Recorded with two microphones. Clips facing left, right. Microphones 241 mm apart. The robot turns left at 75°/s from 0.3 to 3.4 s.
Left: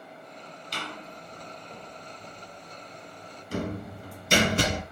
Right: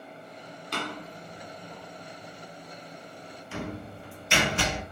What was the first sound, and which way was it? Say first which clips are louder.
A door slam: right 5 dB; 55° right (ahead or behind).